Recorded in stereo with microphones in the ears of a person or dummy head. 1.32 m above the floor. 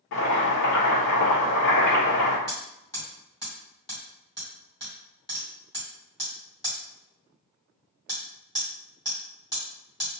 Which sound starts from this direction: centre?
Hammering, at 2.5 s.